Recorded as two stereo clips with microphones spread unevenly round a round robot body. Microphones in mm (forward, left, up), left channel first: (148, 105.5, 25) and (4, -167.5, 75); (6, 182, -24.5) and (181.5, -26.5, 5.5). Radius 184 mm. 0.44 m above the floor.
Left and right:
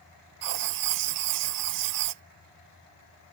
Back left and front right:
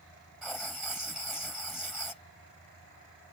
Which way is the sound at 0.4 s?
140° right.